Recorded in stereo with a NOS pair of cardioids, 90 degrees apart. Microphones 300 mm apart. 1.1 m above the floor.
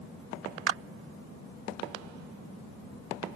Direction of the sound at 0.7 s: 50° right.